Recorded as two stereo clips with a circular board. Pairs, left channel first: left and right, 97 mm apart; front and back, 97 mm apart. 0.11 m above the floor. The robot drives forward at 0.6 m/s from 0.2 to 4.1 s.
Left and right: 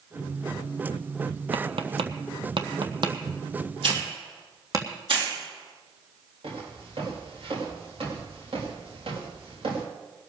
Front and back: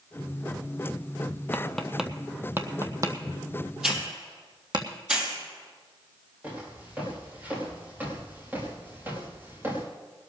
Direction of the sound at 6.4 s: 105° right.